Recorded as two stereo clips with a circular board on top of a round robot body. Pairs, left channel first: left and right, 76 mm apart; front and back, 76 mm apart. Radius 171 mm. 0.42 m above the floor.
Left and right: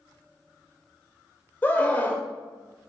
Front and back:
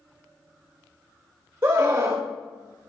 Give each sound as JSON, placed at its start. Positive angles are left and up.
{"t": 1.6, "sound": "a scream", "azimuth_deg": 135, "distance_m": 1.6}